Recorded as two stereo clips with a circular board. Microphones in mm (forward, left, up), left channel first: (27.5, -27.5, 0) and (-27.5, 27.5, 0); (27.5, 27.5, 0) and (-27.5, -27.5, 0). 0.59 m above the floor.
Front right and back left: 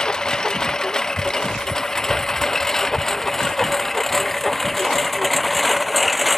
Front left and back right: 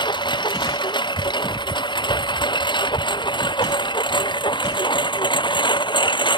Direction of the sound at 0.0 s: 35° left.